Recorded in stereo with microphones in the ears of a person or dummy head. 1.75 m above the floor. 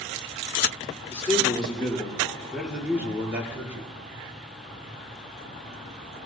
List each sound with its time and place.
1.1 s a man speaking: 5° left (ahead or behind), 4.5 m; by 3.9 s 20° right (ahead or behind), 4 m